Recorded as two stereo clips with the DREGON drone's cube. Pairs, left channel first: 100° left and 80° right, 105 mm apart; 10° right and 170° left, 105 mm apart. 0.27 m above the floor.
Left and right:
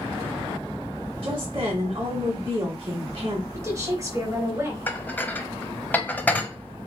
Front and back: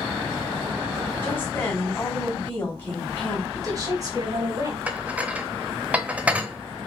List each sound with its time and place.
1.2 s a woman speaking: 75° right, 1.8 m
3.5 s a woman speaking: 140° right, 2.5 m
4.9 s dishes clattering: 120° left, 0.6 m